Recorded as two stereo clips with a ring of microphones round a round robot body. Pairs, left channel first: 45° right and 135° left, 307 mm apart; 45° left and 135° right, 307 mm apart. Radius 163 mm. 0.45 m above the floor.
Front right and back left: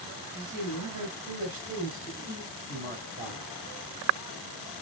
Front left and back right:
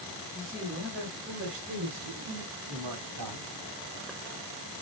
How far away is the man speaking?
About 4.5 m.